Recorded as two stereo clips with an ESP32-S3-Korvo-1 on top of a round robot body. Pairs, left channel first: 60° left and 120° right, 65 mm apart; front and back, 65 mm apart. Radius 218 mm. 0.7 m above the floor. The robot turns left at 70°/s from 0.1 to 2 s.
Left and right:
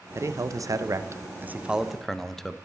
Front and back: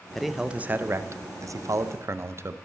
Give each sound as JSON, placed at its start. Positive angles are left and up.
{"t": 0.1, "sound": "a man speaking", "azimuth_deg": -85, "distance_m": 0.7}